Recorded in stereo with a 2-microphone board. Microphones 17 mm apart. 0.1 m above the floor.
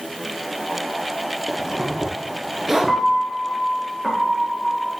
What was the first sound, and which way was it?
A zipper, 25° right (ahead or behind).